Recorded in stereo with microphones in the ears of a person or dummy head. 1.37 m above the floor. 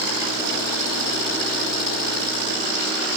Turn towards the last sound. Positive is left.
No sound to turn to.